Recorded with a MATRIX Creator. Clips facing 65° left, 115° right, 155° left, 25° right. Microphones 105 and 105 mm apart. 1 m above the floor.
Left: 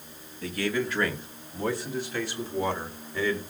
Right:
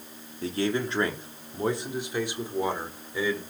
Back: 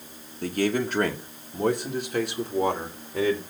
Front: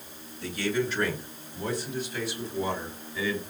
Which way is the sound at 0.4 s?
170° right.